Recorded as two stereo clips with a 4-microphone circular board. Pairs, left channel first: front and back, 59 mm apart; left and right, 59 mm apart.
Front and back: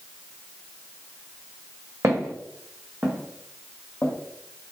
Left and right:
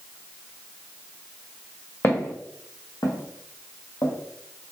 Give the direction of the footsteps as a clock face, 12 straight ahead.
7 o'clock.